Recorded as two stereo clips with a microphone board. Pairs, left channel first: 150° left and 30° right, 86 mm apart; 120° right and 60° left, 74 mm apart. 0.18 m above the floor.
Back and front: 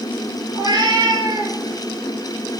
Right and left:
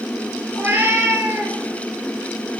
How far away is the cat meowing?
About 1.4 m.